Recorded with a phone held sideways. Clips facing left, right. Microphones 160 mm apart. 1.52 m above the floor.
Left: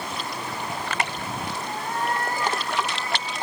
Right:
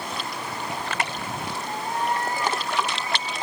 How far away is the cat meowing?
About 4 m.